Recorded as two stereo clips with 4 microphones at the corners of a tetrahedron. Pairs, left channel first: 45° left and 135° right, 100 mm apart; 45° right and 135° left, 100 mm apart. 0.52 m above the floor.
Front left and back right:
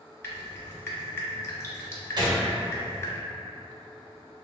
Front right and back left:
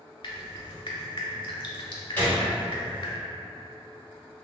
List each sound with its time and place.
0.2 s dripping: 15° right, 0.6 m
2.2 s a gunshot: 115° right, 0.8 m